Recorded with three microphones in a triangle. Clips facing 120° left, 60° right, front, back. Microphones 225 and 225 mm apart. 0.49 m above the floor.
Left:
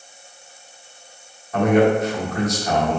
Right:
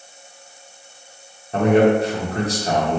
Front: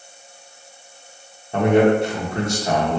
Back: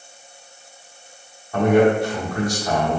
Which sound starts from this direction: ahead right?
A man speaking, at 1.5 s.